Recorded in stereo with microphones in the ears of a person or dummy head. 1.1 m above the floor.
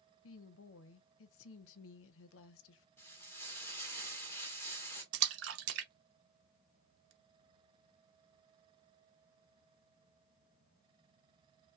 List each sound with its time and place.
0.2 s a woman speaking: 80° left, 0.6 m
3.0 s frying: 15° left (ahead or behind), 1.6 m
5.1 s a splash: 85° right, 0.8 m